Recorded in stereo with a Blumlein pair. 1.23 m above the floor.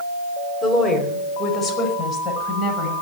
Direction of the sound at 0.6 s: 15° left.